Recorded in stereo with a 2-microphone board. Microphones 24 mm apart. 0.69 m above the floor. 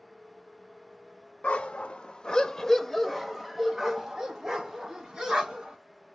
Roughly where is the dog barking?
Left.